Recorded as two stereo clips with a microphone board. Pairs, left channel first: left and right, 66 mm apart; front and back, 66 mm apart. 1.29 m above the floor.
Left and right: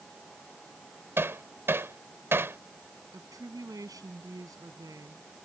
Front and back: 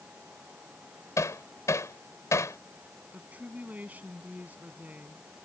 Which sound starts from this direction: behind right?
A woman speaking, at 3.1 s.